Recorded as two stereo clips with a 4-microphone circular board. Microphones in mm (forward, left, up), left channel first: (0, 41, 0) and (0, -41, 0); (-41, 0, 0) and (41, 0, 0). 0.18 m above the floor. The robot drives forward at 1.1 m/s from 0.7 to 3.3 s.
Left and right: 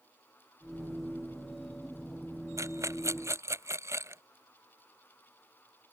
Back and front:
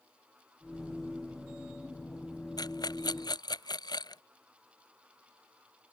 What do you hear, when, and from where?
2.6 s a rattle: 140° right; by 4.2 s 145° right